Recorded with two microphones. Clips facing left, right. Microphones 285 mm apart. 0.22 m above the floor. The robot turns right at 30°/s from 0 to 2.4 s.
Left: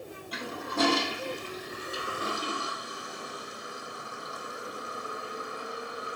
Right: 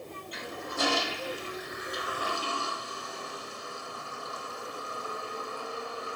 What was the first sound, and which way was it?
A toilet flushing, 65° left (ahead or behind).